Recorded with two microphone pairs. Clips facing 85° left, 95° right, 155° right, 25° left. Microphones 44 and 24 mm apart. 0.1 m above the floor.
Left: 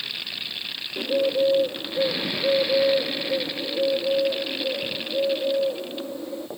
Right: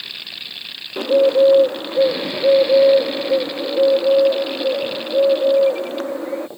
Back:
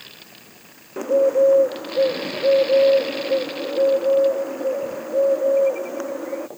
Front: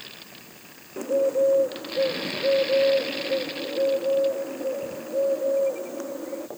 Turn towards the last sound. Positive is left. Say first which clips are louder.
# right 9 dB, back 5 dB
turn(degrees=-95)